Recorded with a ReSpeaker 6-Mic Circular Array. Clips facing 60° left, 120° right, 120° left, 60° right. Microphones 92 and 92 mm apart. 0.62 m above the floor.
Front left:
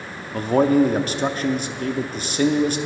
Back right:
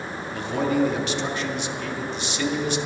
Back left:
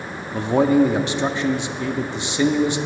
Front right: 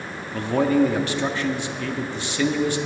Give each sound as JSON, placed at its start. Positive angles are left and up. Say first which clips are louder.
{"t": 0.3, "sound": "a man speaking", "louder": "front left 7 dB, back left 3 dB", "azimuth_deg": 60, "distance_m": 0.7}